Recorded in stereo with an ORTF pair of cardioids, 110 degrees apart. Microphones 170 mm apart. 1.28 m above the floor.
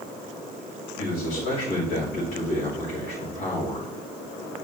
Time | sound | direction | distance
1.0 | a man speaking | 65° left | 4 m